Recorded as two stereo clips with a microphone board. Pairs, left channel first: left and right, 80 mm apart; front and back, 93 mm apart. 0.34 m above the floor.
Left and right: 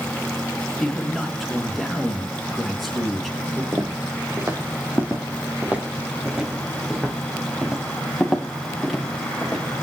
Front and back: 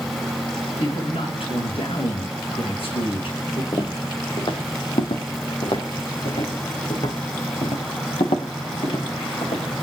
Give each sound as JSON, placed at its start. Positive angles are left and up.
{"t": 0.8, "sound": "a man speaking", "azimuth_deg": 0, "distance_m": 4.5}
{"t": 3.7, "sound": "footsteps", "azimuth_deg": -35, "distance_m": 2.5}